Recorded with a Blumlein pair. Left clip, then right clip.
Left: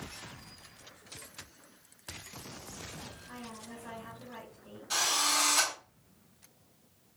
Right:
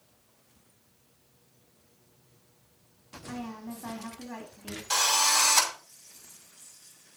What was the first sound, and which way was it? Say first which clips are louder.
A woman speaking: right 5 dB; 35° right.